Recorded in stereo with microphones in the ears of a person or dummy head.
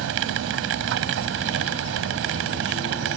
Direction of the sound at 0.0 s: 65° right (ahead or behind).